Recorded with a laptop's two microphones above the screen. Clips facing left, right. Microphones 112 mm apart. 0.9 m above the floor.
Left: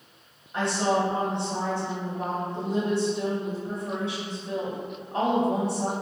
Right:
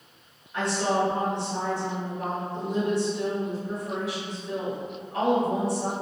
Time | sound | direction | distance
0.5 | a woman speaking | 30° left (ahead or behind) | 1.1 m